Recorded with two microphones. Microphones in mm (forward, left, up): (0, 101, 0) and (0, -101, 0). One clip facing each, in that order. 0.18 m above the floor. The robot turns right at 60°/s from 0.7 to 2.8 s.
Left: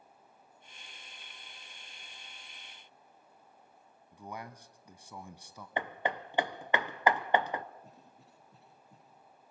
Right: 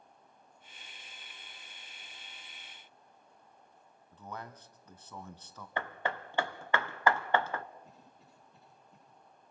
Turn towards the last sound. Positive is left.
turn(degrees=80)